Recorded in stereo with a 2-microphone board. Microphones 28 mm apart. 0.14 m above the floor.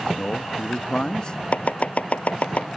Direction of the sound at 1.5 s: 60° left (ahead or behind).